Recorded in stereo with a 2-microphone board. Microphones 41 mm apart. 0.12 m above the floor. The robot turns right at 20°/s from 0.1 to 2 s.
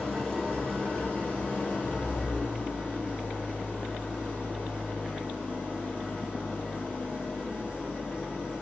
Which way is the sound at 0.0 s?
10° left.